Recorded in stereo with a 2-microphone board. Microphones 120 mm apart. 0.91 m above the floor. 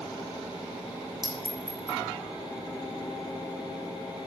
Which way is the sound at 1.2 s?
Centre (ahead or behind).